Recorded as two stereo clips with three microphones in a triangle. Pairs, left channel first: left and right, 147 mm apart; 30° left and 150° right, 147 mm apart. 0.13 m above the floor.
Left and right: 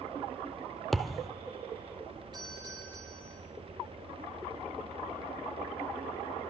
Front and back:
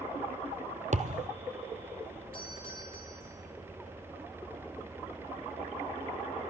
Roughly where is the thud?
Behind.